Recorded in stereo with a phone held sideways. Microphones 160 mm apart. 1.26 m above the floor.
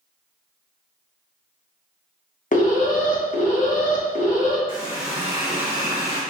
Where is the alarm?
55° left (ahead or behind), 0.8 m.